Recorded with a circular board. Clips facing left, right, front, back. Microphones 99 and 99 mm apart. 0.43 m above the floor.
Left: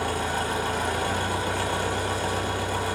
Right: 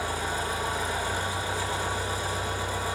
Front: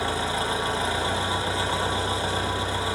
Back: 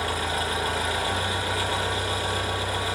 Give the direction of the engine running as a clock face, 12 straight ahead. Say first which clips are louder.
Left 3 dB, front 1 dB; 10 o'clock.